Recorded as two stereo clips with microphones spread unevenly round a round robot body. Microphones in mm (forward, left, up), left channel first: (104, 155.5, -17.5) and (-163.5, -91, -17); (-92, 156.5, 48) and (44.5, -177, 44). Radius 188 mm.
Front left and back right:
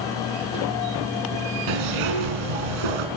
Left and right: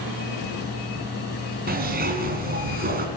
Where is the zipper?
135° right, 3.5 m.